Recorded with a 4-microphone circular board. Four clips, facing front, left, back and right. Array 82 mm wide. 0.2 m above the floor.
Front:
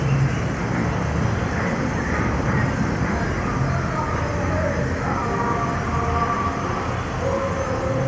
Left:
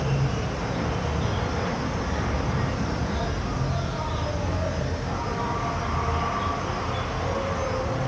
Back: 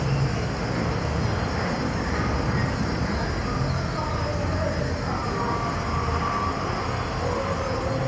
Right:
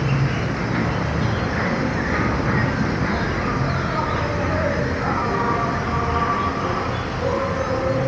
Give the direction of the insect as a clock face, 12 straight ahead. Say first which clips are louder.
Right 5 dB, front 3 dB; 2 o'clock.